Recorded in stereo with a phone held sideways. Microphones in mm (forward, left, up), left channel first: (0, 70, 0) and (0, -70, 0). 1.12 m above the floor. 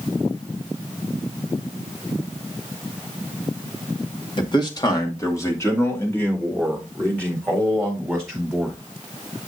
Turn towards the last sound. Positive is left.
turn(degrees=5)  # may be behind; listen again after turning